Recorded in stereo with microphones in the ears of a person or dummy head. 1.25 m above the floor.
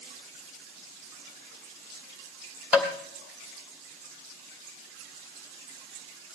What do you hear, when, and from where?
2.7 s tapping: 5° right (ahead or behind), 2.5 m